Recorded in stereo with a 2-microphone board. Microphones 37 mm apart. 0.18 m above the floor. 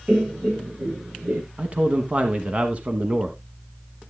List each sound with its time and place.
0.1 s laughter: 30° right (ahead or behind), 1.7 m; by 1.4 s 55° right (ahead or behind), 2.5 m
1.6 s a man speaking: 35° right (ahead or behind), 1.1 m